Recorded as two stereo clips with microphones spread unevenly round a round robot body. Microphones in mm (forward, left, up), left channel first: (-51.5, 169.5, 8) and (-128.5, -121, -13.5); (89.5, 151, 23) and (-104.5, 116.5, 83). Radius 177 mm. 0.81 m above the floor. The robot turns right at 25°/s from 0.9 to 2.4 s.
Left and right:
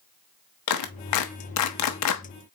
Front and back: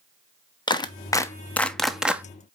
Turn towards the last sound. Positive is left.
turn(degrees=100)